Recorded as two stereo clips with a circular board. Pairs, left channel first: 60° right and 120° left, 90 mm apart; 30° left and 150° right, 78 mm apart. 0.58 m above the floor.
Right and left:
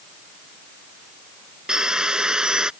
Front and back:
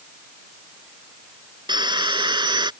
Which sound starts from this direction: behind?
Sawing, at 1.7 s.